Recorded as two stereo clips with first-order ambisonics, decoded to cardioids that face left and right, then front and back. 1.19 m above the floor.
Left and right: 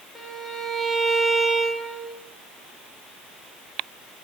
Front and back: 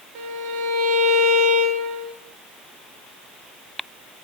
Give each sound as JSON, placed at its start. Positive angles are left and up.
{"t": 0.1, "sound": "a violin", "azimuth_deg": 175, "distance_m": 1.1}